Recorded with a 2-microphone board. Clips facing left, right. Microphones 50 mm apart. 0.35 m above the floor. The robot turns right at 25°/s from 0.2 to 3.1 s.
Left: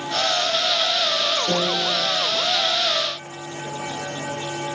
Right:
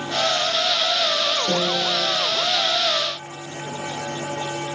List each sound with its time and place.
1.5 s a piano: 10° left (ahead or behind), 8 m; by 2.1 s 5° right (ahead or behind), 8 m